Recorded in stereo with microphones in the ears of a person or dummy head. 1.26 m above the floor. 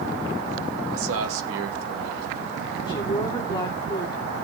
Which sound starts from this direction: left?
A woman speaking, at 2.9 s.